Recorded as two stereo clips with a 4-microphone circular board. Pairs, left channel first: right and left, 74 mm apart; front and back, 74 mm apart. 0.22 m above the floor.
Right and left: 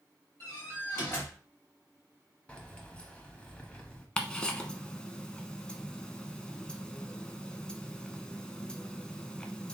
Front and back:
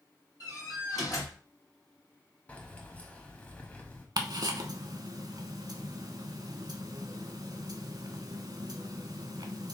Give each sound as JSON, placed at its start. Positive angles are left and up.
{"t": 0.4, "sound": "a door slam", "azimuth_deg": -40, "distance_m": 3.0}
{"t": 2.5, "sound": "keys jangling", "azimuth_deg": -40, "distance_m": 0.9}
{"t": 4.2, "sound": "ticking", "azimuth_deg": -165, "distance_m": 0.7}